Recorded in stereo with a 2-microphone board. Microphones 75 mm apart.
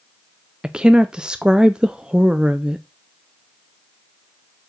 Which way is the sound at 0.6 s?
10° right (ahead or behind).